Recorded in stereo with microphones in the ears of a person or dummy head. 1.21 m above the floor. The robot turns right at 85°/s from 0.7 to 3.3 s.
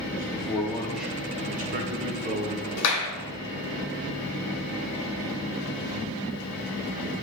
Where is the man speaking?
160° left, 0.7 m; by 2.7 s 30° right, 0.7 m.